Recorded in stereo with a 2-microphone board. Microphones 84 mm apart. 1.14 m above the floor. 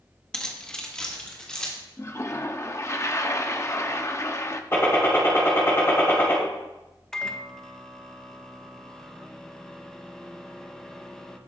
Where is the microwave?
5° left (ahead or behind), 0.9 m.